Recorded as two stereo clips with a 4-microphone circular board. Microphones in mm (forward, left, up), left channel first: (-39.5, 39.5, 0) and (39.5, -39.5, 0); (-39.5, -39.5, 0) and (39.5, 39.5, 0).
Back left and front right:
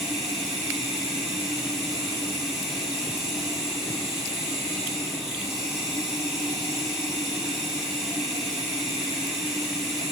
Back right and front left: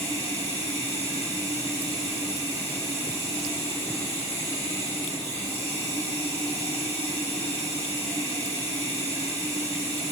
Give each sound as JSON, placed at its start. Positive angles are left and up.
{"t": 0.0, "sound": "running water", "azimuth_deg": -130, "distance_m": 3.5}